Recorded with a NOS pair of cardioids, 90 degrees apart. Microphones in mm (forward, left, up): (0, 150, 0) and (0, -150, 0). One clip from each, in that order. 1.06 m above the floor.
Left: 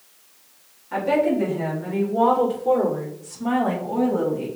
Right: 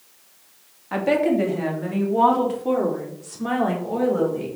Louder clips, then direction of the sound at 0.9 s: Even; 55° right.